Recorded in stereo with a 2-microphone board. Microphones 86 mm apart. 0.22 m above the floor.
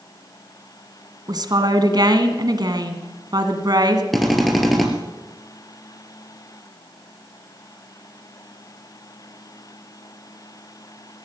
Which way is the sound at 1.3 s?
50° right (ahead or behind).